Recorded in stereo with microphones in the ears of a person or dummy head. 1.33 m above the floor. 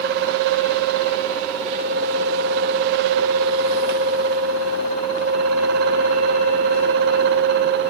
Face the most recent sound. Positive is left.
No sound to turn to.